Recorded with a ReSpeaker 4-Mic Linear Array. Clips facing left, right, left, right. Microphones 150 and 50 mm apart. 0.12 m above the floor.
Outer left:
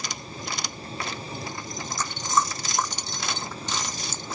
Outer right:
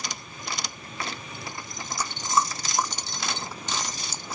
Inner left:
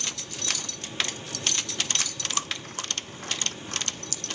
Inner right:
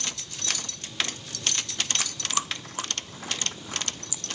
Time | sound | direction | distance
2.0 | chewing | 10° right (ahead or behind) | ?